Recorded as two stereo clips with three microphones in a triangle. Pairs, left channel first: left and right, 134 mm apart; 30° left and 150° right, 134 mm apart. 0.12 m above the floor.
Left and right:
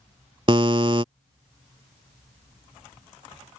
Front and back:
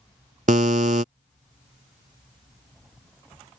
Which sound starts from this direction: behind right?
A buzzer, at 0.5 s.